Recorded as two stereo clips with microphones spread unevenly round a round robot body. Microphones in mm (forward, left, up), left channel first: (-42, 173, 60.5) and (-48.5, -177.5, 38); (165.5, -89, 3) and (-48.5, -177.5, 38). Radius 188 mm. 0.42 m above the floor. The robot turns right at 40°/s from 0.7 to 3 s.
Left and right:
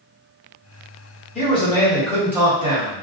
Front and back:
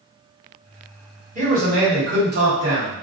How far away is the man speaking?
About 1.4 m.